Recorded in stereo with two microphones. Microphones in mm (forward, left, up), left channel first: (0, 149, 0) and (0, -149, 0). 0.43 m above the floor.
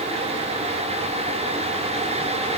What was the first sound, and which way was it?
Only background noise.